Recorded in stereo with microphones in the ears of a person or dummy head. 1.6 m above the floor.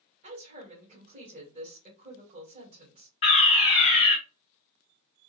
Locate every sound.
0.2 s a woman speaking: 40° right (ahead or behind), 2.0 m
3.2 s a fire alarm: 20° left (ahead or behind), 1.2 m